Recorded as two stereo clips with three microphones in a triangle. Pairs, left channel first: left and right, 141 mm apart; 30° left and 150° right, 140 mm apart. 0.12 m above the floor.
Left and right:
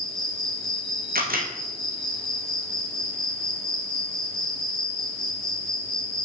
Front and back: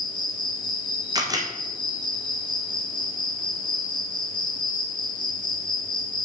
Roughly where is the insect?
Ahead.